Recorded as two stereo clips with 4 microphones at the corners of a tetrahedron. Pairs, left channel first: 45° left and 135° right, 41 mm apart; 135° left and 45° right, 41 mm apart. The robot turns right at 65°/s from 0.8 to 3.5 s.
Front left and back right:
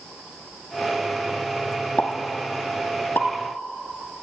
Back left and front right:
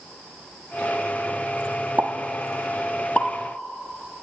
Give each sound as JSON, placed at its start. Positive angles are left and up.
{"t": 2.0, "sound": "a pop", "azimuth_deg": -5, "distance_m": 0.7}